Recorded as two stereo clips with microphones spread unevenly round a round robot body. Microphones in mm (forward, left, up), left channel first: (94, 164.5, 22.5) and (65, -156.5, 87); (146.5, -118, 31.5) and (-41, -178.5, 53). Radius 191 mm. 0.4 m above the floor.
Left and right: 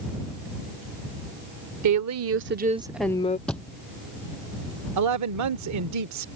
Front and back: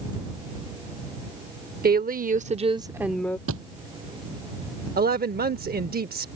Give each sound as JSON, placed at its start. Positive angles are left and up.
{"t": 1.8, "sound": "a woman speaking", "azimuth_deg": -130}
{"t": 3.5, "sound": "a thud", "azimuth_deg": 175}
{"t": 5.0, "sound": "a woman speaking", "azimuth_deg": -130}